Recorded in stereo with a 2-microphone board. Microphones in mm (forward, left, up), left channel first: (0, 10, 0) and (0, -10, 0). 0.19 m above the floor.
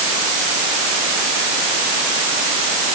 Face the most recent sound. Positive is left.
No sound to turn to.